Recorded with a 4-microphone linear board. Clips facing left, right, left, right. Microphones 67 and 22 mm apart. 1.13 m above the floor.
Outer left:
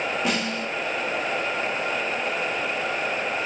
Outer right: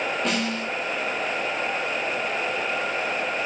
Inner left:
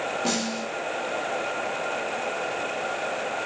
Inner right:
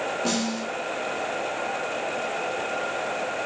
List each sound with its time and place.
0.2 s a snare drum: 5° left (ahead or behind), 6.5 m